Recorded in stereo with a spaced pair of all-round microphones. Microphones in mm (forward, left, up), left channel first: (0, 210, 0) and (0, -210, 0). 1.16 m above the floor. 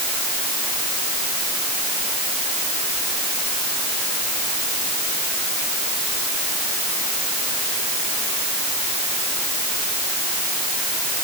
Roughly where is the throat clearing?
I don't hear throat clearing.